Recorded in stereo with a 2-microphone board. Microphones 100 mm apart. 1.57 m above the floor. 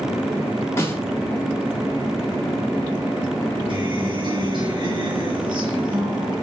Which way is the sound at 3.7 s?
55° right (ahead or behind).